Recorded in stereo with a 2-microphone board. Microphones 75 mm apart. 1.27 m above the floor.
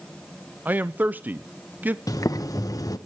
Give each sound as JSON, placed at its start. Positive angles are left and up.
{"t": 0.7, "sound": "a man speaking", "side_deg": -25, "distance_m": 0.6}
{"t": 2.1, "sound": "boiling", "side_deg": 50, "distance_m": 1.1}